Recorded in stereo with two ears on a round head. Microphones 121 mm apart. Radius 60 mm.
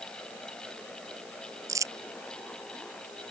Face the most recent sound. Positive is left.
turn(degrees=-25)  # may be behind; listen again after turning